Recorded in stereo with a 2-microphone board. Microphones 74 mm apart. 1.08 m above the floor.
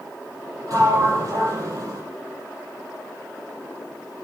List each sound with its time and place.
0.7 s a sliding door: 45° right (ahead or behind), 5.5 m